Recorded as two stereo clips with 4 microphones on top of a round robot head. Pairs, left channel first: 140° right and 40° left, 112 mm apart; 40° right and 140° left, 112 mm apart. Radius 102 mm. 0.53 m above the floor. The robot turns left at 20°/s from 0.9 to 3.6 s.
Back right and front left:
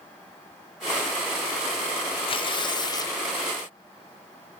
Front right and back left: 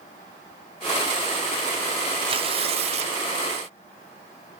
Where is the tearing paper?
Straight behind, 1.4 m; by 3.2 s 160° left, 1.4 m.